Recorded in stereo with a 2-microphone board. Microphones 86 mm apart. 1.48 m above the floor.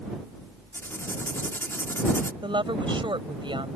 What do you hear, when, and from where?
0.7 s writing: 25° left (ahead or behind)
2.4 s a woman speaking: 85° right